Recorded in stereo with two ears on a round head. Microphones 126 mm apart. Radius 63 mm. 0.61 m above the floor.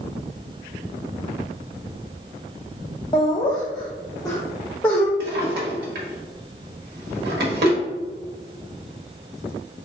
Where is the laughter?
30° left (ahead or behind), 0.6 m; by 5.1 s 15° left (ahead or behind), 1.4 m.